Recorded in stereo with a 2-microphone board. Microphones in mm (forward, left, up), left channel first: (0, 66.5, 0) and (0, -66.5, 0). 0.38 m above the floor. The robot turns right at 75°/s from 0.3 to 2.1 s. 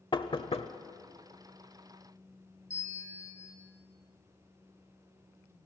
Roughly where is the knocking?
Left.